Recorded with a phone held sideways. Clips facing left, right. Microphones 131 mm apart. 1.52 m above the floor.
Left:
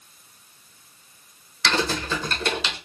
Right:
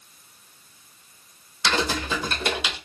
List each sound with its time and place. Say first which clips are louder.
1.6 s typing on a keyboard: even; 10° right (ahead or behind), 0.8 m